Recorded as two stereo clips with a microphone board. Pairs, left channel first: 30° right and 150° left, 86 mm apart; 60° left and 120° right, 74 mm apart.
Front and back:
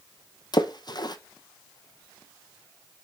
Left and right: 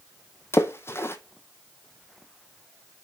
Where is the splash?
5° left, 0.7 m.